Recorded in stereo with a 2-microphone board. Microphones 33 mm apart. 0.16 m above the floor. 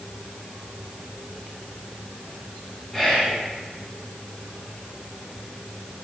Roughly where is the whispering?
Centre.